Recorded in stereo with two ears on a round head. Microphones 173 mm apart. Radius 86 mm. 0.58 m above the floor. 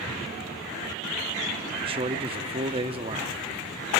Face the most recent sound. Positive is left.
turn(degrees=-25)  # may be behind; listen again after turning